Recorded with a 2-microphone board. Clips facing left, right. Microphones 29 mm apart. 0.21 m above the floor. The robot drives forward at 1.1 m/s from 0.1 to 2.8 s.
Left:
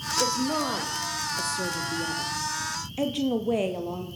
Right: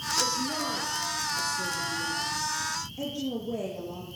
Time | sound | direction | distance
0.2 | a woman speaking | 50° left (ahead or behind) | 7 m